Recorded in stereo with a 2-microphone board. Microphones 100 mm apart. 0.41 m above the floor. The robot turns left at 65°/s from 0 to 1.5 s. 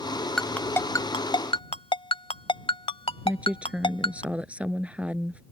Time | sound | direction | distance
0.4 | a ringtone | centre (ahead or behind) | ?
3.2 | a woman speaking | 10° right (ahead or behind) | ?